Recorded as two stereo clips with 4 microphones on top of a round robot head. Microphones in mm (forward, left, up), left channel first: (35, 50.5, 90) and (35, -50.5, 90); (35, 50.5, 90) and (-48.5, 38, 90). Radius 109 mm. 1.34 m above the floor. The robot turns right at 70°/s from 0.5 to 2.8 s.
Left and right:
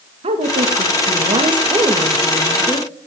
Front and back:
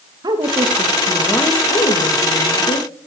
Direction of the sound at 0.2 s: 120° right.